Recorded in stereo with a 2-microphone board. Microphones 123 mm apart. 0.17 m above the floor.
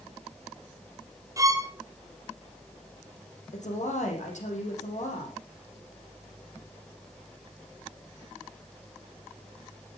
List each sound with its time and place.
1.4 s a violin: 25° right (ahead or behind), 2.5 m
3.5 s a woman speaking: 75° left (ahead or behind), 7 m